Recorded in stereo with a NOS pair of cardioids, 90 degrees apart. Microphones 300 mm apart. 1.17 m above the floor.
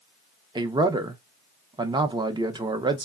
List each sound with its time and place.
0.6 s a man speaking: 15° right, 0.7 m